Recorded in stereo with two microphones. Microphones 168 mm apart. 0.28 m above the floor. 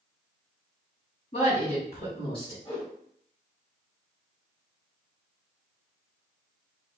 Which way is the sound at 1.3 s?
50° left (ahead or behind).